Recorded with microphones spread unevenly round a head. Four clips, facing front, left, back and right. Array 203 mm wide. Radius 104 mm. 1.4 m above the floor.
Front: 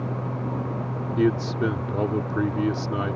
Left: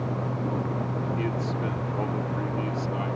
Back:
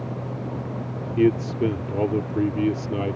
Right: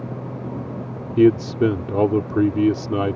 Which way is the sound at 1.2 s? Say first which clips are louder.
Right 13 dB, back 3 dB; 90° right.